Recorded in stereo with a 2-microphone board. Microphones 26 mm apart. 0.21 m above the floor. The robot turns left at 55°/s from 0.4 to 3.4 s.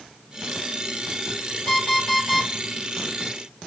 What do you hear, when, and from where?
1.7 s an alarm clock: 40° left, 1.7 m; by 2.5 s 10° right, 1.7 m